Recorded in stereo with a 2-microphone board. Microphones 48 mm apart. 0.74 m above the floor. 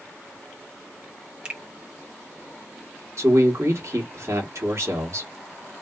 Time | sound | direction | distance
1.4 | a finger snap | 20° right (ahead or behind) | 0.9 m
3.2 | a man speaking | 60° right (ahead or behind) | 1.3 m